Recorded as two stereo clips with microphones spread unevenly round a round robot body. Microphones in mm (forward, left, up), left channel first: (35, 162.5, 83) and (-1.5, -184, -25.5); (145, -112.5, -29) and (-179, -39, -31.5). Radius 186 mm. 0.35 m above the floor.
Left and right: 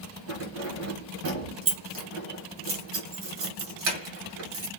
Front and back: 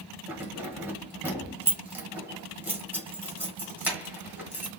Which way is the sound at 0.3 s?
110° right.